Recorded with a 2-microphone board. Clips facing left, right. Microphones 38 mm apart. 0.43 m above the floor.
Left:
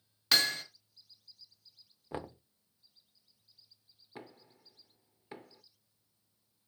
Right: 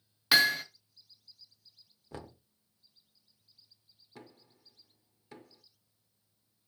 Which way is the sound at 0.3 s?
15° right (ahead or behind).